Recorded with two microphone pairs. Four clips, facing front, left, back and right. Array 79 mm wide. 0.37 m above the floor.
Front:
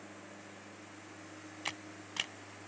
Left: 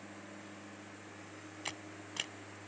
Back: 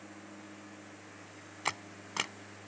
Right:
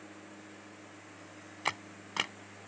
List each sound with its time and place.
1.6 s a camera shutter: 130° right